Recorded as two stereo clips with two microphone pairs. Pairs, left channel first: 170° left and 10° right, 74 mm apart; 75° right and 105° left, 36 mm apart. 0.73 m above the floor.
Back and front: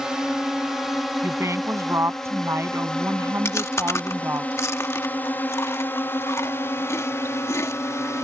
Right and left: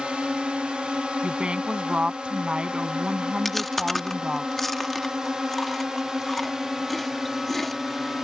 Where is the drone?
65° left; by 8.2 s 175° left.